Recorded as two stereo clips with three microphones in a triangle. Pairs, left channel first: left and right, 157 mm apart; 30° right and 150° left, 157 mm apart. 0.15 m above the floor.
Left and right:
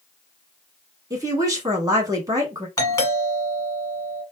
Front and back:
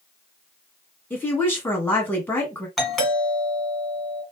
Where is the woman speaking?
85° right, 1.4 m.